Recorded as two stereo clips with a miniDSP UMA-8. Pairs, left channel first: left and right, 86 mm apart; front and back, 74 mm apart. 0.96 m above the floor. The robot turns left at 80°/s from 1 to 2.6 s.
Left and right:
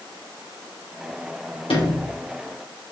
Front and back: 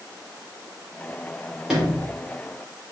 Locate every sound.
1.7 s a sliding door: 100° left, 2.5 m; by 2.1 s 65° left, 2.5 m